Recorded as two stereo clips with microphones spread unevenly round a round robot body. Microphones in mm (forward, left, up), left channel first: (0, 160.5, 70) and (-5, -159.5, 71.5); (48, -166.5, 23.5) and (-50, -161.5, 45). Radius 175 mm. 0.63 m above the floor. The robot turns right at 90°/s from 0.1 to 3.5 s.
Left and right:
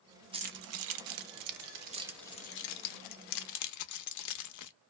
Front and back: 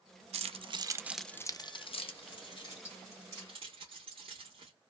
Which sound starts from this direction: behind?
Keys jangling, at 0.3 s.